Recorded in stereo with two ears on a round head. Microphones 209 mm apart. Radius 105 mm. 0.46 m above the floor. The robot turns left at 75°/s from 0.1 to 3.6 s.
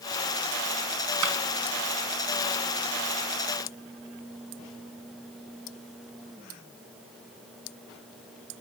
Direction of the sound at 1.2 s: 75° right (ahead or behind).